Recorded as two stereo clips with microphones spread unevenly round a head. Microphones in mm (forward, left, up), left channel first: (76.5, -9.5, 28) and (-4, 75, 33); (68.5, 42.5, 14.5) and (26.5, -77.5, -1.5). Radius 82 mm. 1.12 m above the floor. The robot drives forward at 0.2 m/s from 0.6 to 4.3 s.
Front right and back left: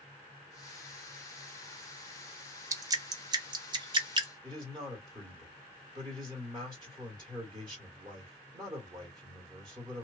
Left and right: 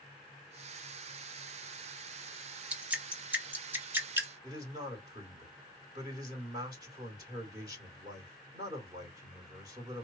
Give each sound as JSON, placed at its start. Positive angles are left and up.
{"t": 2.7, "sound": "dripping", "azimuth_deg": -175, "distance_m": 0.5}
{"t": 4.4, "sound": "a man speaking", "azimuth_deg": -165, "distance_m": 1.5}